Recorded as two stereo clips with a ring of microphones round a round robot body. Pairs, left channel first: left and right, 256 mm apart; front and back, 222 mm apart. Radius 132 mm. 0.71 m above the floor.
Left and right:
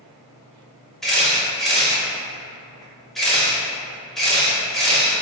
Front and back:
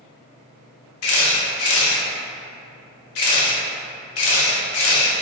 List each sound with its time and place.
1.0 s a camera shutter: straight ahead, 0.7 m